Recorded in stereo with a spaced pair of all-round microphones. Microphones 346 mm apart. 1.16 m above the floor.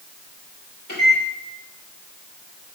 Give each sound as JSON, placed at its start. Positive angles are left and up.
{"t": 0.9, "sound": "a microwave", "side_deg": 70, "distance_m": 3.5}